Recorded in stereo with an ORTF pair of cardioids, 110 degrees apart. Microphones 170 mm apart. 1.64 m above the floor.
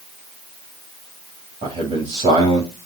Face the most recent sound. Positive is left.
turn(degrees=-35)